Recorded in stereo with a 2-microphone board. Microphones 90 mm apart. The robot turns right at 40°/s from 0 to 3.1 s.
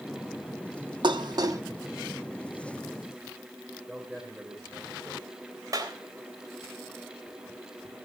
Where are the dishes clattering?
60° right (ahead or behind), 0.9 m; by 1.6 s 40° right (ahead or behind), 0.9 m.